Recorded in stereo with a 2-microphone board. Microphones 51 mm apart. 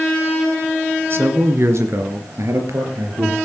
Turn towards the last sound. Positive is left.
turn(degrees=-70)  # may be behind; listen again after turning